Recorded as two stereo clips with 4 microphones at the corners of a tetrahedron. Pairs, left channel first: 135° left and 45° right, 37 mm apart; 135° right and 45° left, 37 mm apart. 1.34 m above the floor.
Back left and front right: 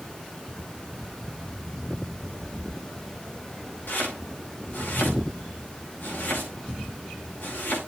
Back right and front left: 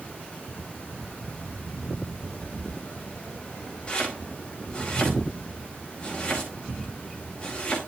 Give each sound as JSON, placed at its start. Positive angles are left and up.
{"t": 3.9, "sound": "chopping", "azimuth_deg": 160, "distance_m": 4.5}